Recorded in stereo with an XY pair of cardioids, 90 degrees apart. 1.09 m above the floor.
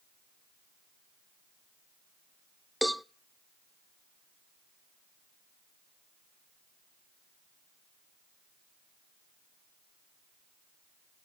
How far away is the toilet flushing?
No toilet flushing in this recording.